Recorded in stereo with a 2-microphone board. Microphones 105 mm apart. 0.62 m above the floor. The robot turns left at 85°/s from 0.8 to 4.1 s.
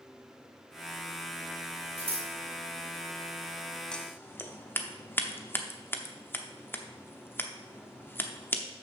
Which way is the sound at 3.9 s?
5° left (ahead or behind).